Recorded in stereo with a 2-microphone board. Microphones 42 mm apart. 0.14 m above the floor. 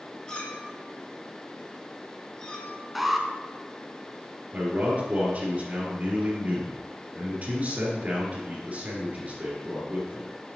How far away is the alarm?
About 0.8 m.